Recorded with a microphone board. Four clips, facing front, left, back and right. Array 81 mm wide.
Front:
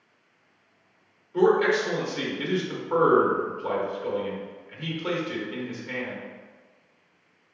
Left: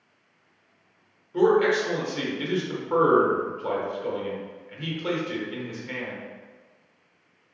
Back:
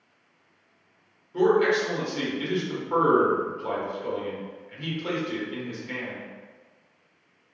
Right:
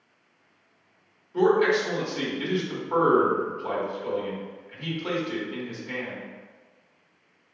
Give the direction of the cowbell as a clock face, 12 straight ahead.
No cowbell in this recording.